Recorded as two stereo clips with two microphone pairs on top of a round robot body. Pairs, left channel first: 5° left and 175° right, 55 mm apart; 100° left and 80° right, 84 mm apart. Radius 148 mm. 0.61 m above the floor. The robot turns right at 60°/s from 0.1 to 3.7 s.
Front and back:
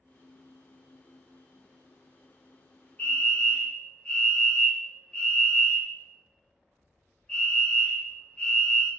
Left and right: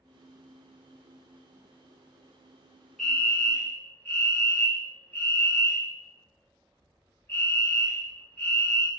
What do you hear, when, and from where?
3.0 s a fire alarm: 30° left, 1.8 m; by 8.9 s 75° left, 1.8 m